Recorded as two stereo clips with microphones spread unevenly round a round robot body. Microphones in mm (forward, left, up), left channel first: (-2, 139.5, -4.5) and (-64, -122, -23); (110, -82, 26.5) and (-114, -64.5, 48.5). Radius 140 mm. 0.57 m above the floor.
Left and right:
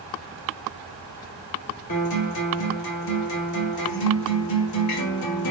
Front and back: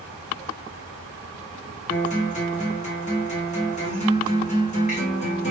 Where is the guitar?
50° left, 1.4 m.